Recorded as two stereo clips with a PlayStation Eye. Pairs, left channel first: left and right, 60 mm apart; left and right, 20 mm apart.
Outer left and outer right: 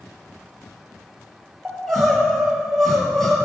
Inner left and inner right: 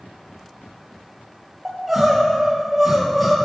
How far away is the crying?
About 2.5 m.